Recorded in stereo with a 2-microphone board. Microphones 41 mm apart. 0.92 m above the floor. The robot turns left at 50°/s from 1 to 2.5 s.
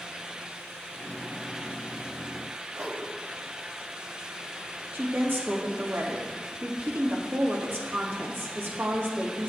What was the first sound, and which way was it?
A whoosh, 65° right (ahead or behind).